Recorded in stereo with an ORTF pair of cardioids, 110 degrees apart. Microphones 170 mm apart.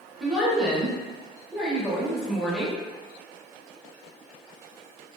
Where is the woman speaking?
5° right, 0.9 m.